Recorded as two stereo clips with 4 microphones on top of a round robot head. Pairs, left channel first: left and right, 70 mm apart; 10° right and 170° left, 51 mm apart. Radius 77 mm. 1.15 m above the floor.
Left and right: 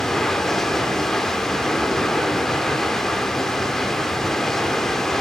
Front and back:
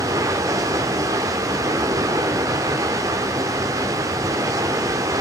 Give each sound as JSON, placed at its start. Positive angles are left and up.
{"t": 0.0, "sound": "running water", "azimuth_deg": 175, "distance_m": 1.3}